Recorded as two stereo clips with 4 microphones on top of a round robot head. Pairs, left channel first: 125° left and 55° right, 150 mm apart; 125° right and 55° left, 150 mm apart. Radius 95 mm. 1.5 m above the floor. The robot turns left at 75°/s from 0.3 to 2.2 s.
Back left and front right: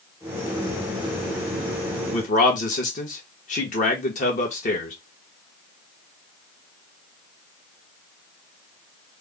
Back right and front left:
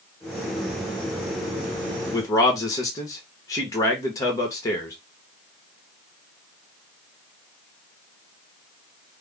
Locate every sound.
2.1 s a man speaking: 170° left, 1.4 m; by 5.0 s 165° left, 1.4 m